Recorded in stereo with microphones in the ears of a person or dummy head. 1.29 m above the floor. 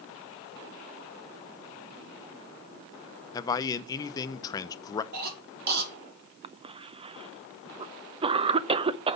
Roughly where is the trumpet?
No trumpet in this recording.